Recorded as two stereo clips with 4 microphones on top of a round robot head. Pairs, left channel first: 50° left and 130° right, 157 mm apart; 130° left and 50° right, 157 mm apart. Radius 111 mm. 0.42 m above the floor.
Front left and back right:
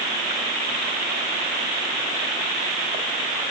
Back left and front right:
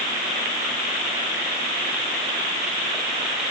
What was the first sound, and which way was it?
Only background noise.